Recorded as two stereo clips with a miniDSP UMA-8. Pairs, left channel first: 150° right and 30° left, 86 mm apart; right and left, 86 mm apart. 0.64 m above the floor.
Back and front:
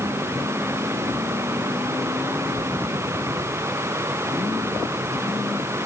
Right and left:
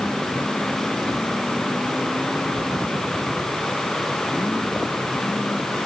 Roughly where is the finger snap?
I don't hear a finger snap.